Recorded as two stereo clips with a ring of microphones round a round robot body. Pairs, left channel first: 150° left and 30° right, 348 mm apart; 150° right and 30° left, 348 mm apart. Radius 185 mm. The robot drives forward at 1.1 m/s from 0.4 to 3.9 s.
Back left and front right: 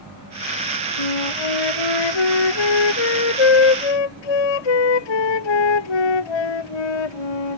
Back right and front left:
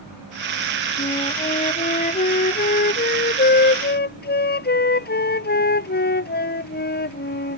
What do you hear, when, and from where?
1.0 s a flute: 135° left; by 7.6 s 145° left